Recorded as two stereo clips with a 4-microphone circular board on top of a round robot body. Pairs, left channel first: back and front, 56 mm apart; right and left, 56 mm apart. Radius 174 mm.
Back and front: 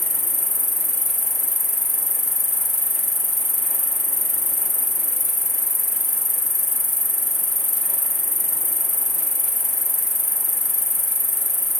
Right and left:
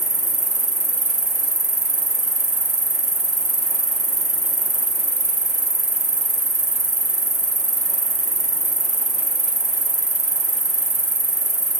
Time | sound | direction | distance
0.0 | an insect | 90° left | 0.8 m